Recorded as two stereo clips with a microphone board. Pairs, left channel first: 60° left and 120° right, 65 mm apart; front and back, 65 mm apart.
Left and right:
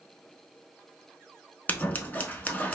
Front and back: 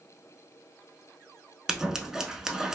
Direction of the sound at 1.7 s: 105° left.